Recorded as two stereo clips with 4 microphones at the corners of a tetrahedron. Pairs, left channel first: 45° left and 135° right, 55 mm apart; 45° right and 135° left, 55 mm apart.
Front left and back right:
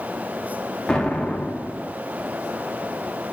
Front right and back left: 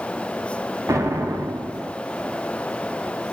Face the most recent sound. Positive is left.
turn(degrees=125)